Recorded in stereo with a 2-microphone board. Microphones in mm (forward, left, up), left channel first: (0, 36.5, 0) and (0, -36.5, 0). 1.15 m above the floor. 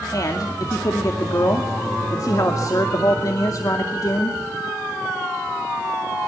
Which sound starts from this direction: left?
A man speaking, at 0.1 s.